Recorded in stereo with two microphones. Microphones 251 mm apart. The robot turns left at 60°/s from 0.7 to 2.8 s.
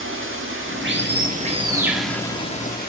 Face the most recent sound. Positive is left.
turn(degrees=135)